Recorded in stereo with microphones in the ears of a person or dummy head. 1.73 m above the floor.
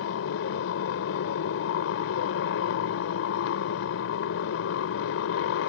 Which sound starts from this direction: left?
A motorcycle, at 0.0 s.